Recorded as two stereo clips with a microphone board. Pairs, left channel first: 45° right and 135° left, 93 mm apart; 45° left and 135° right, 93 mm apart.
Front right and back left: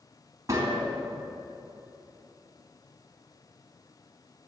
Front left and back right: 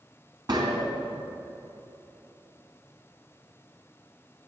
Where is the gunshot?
175° right, 2.5 m.